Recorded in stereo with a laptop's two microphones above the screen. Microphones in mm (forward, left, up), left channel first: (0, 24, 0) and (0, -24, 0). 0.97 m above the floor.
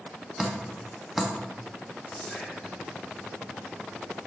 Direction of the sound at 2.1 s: 10° left (ahead or behind).